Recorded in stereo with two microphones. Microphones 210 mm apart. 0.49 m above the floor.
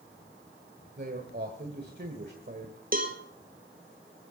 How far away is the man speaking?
About 1.6 m.